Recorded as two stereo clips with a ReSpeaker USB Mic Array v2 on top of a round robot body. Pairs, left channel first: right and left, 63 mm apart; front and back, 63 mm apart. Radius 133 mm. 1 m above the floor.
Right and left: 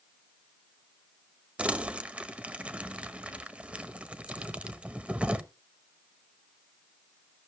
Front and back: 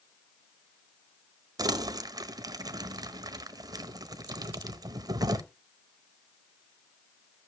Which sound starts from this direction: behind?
Crumpling, at 1.6 s.